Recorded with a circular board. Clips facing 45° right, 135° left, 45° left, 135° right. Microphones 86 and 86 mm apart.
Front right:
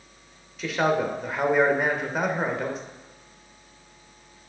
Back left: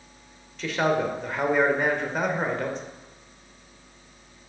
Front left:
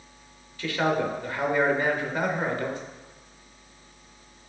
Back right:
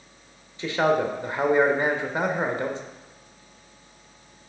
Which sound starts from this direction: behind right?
A man speaking, at 0.6 s.